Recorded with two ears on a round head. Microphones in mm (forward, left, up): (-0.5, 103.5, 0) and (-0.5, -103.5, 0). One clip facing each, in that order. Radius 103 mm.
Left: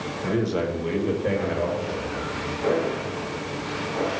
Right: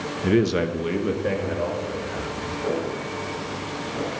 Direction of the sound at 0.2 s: 45° right (ahead or behind).